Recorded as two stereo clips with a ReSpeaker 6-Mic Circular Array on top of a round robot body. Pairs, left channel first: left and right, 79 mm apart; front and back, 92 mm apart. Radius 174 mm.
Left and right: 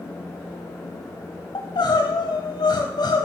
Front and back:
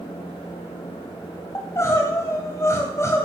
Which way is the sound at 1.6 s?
60° left.